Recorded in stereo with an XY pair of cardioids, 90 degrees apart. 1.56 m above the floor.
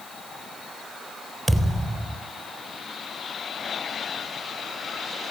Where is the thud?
25° right, 5 m.